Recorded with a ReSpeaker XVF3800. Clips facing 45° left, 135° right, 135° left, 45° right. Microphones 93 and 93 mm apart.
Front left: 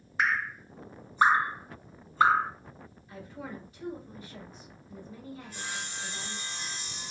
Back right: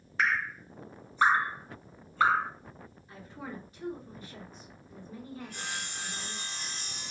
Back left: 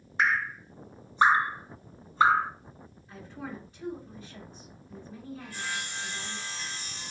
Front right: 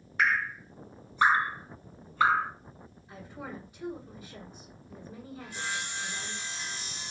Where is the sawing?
110° right, 1.2 m.